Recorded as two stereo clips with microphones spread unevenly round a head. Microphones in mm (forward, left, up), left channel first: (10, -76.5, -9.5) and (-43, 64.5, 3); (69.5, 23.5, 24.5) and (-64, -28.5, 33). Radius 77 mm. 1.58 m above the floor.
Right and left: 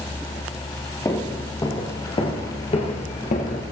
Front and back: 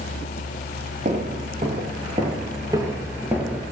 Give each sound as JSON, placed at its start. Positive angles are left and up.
{"t": 1.1, "sound": "footsteps", "azimuth_deg": -135, "distance_m": 2.5}